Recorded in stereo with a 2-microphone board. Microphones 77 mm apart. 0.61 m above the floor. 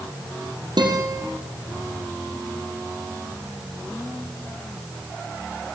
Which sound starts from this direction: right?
A guitar, at 0.8 s.